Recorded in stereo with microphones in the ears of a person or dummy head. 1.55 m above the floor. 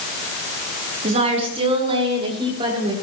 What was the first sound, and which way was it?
A woman speaking, 35° right (ahead or behind).